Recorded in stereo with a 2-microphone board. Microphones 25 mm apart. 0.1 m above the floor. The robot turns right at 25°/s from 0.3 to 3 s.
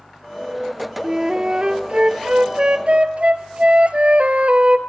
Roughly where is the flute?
Behind right.